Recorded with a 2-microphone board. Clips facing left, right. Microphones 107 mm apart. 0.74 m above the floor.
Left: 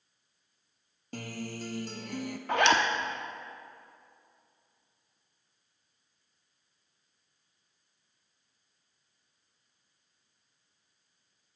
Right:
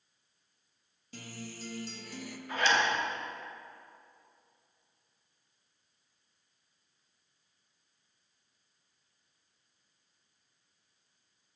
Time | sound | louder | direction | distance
1.1 | a guitar | left 7 dB | 55° left (ahead or behind) | 0.6 m
2.5 | a zipper | left 4 dB | 70° left (ahead or behind) | 0.8 m